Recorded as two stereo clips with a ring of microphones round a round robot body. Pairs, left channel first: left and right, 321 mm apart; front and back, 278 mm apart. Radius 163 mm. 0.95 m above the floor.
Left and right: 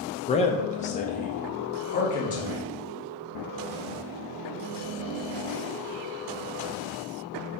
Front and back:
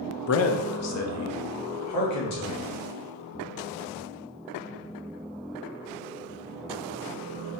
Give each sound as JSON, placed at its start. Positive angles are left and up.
{"t": 0.3, "sound": "a man speaking", "azimuth_deg": 20, "distance_m": 0.6}